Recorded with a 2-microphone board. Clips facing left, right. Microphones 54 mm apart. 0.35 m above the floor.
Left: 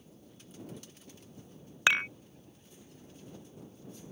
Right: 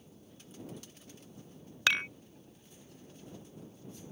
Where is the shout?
No shout in this recording.